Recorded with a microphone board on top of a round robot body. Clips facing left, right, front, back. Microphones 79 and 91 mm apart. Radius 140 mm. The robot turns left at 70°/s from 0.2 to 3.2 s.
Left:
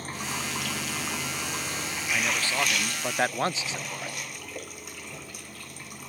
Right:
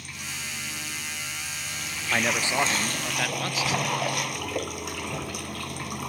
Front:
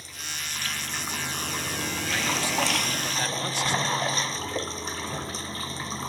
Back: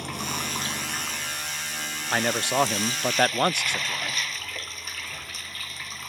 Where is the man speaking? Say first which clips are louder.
Right 4 dB, back 5 dB; 135° right; by 4.2 s 150° left.